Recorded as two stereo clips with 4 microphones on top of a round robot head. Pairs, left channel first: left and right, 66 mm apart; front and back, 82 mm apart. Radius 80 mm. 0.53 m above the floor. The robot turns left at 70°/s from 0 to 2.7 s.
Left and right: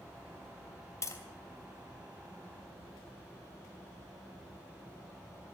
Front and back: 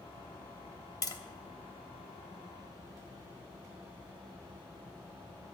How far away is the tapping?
About 3 m.